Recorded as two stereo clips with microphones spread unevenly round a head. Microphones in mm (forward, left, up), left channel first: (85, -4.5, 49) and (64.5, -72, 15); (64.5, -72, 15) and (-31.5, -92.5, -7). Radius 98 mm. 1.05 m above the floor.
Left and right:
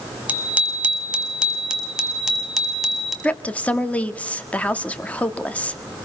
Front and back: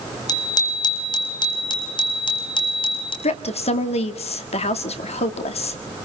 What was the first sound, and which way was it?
A bicycle bell, 35° right.